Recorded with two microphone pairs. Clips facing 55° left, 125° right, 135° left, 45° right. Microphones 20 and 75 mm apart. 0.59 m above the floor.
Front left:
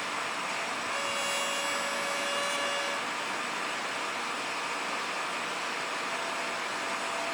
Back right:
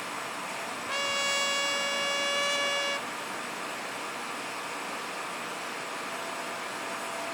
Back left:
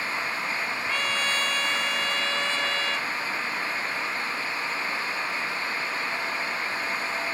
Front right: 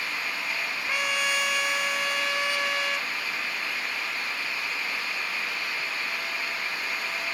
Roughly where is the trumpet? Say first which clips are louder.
Back right 5 dB, front right 1 dB; behind right.